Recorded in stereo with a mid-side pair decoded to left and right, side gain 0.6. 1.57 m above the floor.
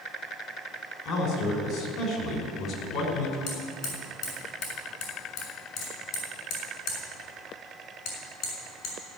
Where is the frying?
I don't hear frying.